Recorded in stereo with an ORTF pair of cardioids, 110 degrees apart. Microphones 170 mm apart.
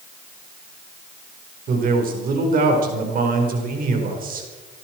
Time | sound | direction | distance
1.7 | a man speaking | 55° right | 4.5 m